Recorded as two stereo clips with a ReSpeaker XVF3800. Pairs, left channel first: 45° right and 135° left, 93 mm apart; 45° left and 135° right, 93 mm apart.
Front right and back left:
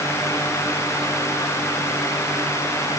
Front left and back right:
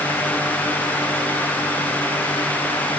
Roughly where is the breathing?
I don't hear breathing.